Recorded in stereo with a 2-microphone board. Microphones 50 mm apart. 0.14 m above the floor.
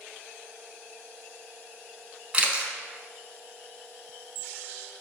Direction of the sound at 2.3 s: 20° right (ahead or behind).